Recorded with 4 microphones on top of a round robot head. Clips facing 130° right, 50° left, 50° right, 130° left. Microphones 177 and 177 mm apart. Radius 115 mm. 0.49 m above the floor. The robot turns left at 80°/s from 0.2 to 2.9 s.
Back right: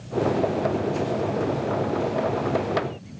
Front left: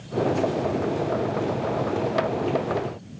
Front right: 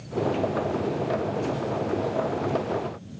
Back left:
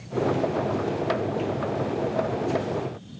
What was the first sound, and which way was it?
Only background noise.